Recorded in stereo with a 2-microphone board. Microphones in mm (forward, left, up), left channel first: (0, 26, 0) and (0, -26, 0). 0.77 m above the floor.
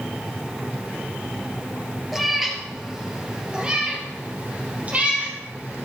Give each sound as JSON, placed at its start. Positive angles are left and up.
{"t": 2.1, "sound": "a cat meowing", "side_deg": 0, "distance_m": 1.9}